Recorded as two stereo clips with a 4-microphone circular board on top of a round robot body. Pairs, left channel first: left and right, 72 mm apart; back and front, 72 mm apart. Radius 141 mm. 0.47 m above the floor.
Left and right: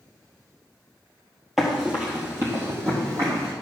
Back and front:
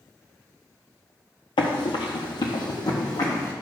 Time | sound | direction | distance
1.6 | running footsteps | straight behind | 0.9 m